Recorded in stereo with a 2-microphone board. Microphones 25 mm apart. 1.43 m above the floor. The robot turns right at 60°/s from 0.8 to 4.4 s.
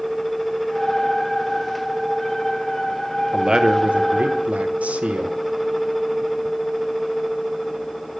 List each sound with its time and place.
3.3 s a man speaking: 155° right, 0.7 m; by 5.4 s 95° right, 0.7 m